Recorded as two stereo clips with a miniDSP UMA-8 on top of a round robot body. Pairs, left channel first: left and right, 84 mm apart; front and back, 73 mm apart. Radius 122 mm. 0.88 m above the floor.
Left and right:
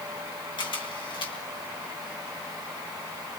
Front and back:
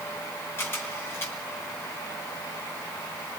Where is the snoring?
I don't hear snoring.